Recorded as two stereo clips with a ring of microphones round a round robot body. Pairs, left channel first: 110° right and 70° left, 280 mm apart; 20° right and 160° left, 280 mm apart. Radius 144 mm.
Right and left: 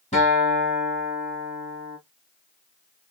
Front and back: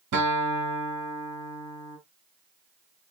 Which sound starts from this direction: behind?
A guitar, at 0.1 s.